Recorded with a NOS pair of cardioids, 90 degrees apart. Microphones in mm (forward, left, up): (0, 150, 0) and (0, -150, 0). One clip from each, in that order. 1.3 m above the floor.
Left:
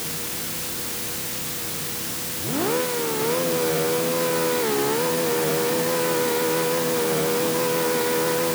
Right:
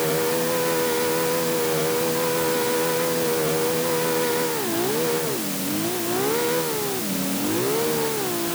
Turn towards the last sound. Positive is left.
No sound to turn to.